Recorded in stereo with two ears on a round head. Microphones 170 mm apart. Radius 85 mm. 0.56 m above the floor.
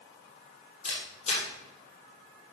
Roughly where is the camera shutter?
Left.